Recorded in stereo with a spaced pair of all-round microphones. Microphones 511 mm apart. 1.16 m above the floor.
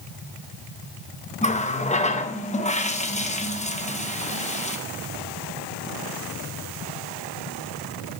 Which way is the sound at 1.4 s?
15° left (ahead or behind).